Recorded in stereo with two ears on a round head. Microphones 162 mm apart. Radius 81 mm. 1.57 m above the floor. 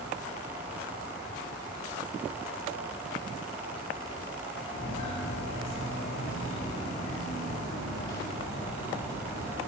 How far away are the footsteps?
About 6 m.